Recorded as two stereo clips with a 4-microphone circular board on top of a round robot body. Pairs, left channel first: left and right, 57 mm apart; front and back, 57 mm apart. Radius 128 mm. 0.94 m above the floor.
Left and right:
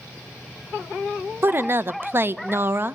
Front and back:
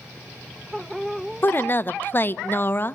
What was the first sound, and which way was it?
A woman speaking, 45° right.